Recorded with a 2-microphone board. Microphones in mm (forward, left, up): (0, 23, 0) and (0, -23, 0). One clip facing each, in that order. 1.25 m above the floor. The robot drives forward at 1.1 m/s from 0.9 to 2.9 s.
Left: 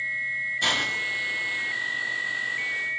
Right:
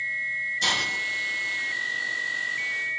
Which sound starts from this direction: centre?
A hiss, at 0.6 s.